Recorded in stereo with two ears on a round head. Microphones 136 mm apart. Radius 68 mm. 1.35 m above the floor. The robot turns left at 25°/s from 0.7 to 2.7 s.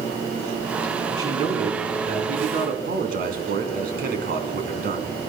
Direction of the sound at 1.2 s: 25° right.